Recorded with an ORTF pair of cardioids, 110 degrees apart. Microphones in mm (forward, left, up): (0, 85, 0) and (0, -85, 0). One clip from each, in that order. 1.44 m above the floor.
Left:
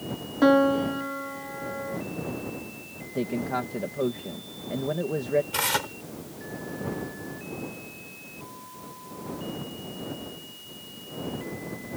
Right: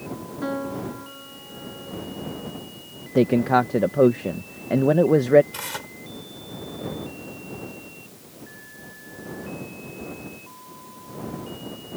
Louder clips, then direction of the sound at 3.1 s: Right 11 dB; 55° right.